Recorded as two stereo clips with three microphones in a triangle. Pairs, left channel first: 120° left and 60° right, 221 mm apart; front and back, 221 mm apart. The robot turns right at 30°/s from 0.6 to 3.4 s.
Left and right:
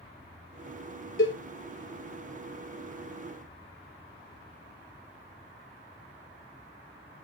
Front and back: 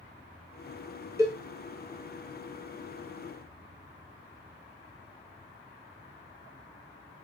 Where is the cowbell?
105° left, 0.7 m; by 1.3 s 110° left, 0.7 m.